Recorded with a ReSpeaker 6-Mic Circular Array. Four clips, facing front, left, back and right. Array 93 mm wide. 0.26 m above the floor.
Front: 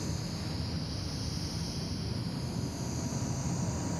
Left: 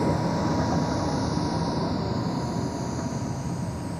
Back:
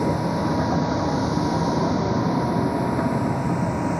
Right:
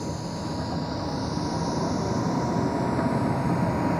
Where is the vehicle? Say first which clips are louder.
Left 7 dB, back 17 dB; 155° left; by 4.0 s 140° right.